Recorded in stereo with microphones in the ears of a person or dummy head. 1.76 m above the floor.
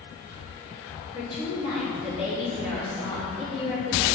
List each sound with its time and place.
1.1 s a woman speaking: 30° left (ahead or behind), 4 m